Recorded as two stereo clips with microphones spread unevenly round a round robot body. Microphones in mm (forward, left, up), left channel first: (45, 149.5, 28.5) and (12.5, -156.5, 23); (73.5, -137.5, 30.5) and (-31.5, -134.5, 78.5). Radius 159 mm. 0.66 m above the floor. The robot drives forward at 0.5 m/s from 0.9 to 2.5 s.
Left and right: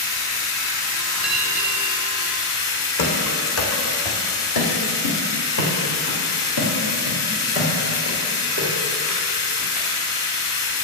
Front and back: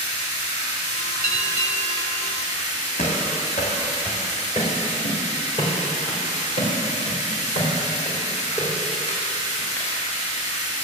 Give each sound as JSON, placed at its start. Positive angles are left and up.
{"t": 0.0, "sound": "running water", "azimuth_deg": 50, "distance_m": 3.0}
{"t": 1.2, "sound": "a bell", "azimuth_deg": 175, "distance_m": 0.7}
{"t": 3.0, "sound": "running footsteps", "azimuth_deg": 70, "distance_m": 2.0}